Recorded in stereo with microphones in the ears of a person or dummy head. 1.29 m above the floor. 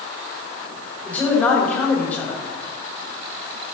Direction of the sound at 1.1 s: 5° left (ahead or behind).